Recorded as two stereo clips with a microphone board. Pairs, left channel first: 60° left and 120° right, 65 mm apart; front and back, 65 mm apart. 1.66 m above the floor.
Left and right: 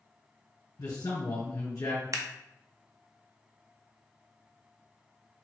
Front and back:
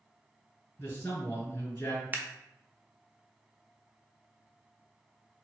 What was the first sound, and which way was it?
A man speaking, 50° left.